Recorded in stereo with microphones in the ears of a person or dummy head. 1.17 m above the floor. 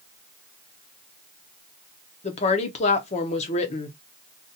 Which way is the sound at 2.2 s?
35° left (ahead or behind).